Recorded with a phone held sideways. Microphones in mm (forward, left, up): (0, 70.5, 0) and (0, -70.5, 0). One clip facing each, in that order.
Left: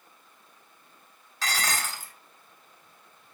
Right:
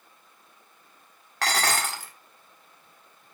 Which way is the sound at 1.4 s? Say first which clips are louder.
Right 5 dB; 65° right (ahead or behind).